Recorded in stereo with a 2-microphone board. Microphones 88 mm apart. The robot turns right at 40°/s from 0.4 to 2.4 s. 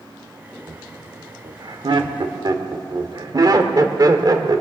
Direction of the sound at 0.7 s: 45° right (ahead or behind).